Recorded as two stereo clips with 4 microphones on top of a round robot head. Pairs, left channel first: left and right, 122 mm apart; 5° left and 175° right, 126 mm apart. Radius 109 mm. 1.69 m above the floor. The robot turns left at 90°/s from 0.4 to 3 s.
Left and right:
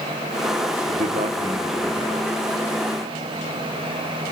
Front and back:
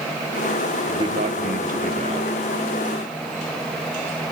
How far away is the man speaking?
About 1.6 m.